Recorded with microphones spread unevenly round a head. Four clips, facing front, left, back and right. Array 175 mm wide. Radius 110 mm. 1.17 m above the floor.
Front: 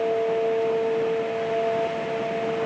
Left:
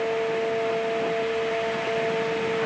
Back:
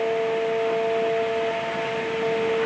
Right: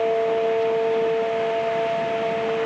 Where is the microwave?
I don't hear a microwave.